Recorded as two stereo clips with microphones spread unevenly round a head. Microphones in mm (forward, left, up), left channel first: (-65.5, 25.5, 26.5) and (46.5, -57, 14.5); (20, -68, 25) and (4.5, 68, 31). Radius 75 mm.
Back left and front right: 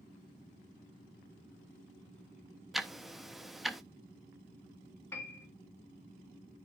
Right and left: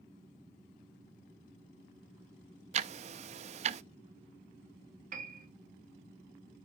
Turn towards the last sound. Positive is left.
turn(degrees=65)